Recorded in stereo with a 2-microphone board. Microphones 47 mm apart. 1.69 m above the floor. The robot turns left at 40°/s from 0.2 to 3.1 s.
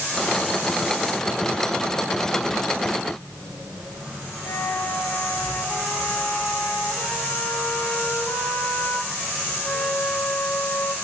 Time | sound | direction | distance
4.4 | a flute | 85° left | 3.5 m